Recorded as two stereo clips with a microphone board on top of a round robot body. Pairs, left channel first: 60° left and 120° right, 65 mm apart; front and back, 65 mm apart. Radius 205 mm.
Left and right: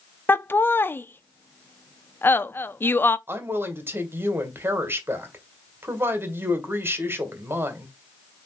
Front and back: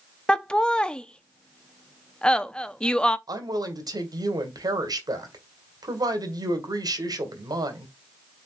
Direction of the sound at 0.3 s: 65° left.